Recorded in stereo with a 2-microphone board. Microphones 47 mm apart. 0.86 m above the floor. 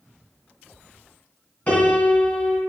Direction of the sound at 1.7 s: 25° left (ahead or behind).